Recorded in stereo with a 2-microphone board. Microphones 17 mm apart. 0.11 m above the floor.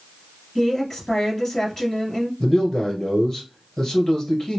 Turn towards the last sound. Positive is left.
turn(degrees=35)  # may be behind; listen again after turning